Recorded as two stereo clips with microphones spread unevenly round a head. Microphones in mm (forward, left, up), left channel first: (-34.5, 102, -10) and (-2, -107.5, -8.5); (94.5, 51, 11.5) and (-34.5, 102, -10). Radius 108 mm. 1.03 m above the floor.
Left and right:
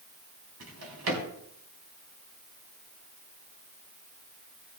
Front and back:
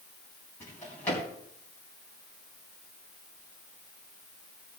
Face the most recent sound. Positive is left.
turn(degrees=-100)